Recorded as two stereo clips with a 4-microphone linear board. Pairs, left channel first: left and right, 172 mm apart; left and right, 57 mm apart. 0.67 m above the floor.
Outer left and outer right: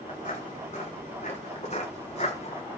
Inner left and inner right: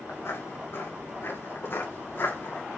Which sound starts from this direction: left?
Footsteps, at 0.1 s.